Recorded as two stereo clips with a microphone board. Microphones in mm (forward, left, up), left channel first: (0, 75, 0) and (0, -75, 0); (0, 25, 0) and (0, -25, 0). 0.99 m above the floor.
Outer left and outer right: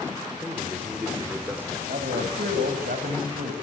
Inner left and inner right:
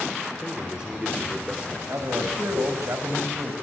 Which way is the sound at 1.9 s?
80° right.